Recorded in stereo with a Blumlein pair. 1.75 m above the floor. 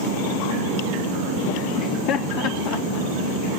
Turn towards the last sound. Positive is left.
turn(degrees=40)